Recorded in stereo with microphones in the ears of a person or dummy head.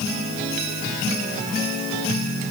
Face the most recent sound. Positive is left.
No sound to turn to.